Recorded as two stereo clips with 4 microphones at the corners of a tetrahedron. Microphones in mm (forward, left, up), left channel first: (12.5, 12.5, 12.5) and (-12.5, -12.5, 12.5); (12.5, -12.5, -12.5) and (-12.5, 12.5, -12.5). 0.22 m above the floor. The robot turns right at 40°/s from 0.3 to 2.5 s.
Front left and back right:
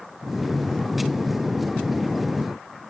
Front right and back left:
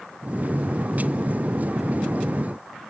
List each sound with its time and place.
Only background noise.